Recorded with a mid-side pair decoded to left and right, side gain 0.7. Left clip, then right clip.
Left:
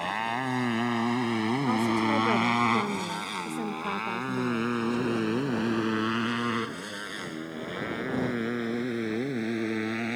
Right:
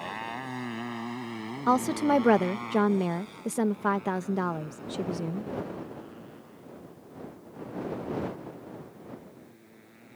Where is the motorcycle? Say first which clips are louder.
Left 6 dB; 30° left; by 10.2 s 80° left.